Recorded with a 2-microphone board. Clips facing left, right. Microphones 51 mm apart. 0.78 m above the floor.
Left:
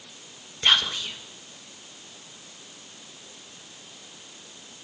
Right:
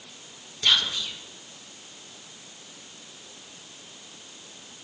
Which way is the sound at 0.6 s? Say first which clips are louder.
Left 2 dB; 30° left (ahead or behind).